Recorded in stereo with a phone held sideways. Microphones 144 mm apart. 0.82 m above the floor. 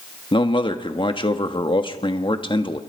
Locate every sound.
0.3 s a man speaking: 35° left (ahead or behind), 1.5 m